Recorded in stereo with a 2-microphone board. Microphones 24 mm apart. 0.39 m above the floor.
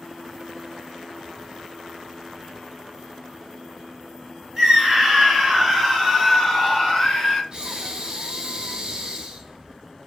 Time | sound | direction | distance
4.6 | a scream | 20° right (ahead or behind) | 1.4 m
7.5 | breathing | 40° right (ahead or behind) | 0.5 m